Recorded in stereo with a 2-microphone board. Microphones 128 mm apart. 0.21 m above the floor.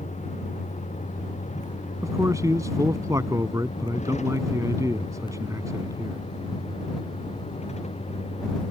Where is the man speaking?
25° right (ahead or behind).